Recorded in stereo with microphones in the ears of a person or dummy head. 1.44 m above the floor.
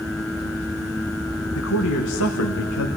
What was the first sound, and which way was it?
A man speaking, 70° left (ahead or behind).